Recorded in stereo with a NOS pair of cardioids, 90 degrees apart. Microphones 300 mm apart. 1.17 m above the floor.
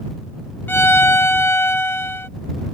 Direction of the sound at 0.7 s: 5° left.